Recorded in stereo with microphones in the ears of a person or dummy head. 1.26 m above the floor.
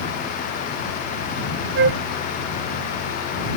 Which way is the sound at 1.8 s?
75° right (ahead or behind).